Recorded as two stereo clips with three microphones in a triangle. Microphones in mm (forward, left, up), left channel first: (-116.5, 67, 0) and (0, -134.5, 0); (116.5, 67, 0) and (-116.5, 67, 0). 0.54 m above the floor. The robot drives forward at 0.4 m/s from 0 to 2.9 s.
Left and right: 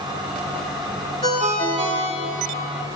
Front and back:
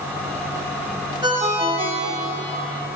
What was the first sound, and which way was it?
A ringtone, 110° right.